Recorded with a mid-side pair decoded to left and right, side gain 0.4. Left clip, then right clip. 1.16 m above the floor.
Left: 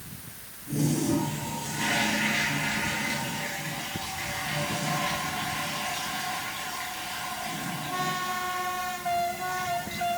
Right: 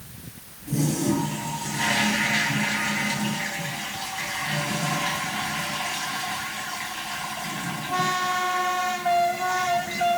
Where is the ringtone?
No ringtone in this recording.